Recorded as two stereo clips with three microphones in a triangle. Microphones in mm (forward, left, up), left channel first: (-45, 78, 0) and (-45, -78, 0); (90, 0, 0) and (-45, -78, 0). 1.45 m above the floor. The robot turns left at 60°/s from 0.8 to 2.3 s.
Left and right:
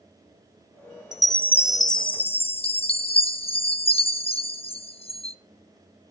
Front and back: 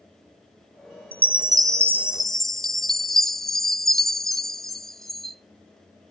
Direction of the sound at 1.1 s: 175° right.